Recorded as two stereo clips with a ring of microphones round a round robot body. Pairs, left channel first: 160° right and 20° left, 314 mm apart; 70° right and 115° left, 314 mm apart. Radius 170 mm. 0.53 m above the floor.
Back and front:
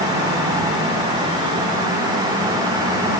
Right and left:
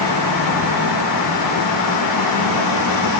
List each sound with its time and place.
Only background noise.